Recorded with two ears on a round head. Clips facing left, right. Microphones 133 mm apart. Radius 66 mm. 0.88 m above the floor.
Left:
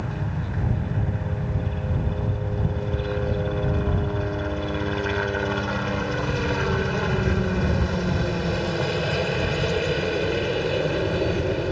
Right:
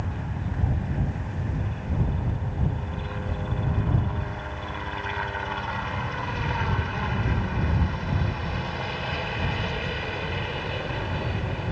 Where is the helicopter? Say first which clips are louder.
Left 3 dB; 60° left (ahead or behind).